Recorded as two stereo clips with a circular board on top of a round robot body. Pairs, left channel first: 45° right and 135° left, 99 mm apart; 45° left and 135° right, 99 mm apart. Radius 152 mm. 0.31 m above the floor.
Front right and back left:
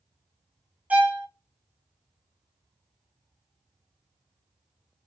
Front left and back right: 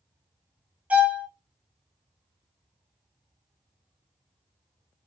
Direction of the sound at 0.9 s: 175° left.